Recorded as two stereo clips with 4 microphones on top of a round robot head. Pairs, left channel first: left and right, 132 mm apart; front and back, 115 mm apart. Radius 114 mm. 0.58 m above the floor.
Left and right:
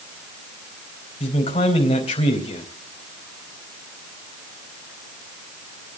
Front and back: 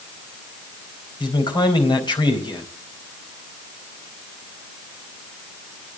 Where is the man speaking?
45° left, 3.5 m.